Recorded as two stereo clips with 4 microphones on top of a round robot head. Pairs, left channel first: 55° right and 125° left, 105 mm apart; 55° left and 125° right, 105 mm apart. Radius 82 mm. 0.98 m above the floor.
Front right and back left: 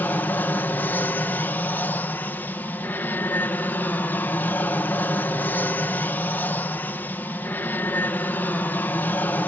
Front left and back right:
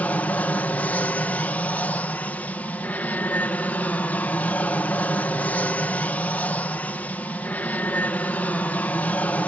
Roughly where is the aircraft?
Ahead.